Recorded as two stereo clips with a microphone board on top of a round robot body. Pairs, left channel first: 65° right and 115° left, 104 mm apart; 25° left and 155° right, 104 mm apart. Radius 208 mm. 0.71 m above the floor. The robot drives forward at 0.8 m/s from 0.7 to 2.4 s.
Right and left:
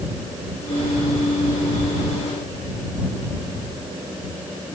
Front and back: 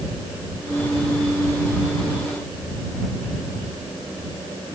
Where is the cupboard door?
No cupboard door in this recording.